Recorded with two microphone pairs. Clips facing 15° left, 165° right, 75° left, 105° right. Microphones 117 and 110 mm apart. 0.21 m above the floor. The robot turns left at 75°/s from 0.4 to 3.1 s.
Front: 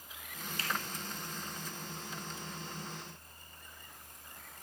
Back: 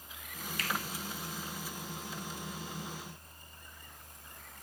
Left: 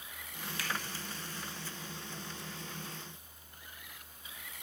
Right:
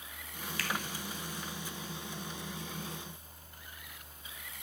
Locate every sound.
0.6 s a finger snap: 30° left, 0.8 m; by 0.7 s 20° left, 0.8 m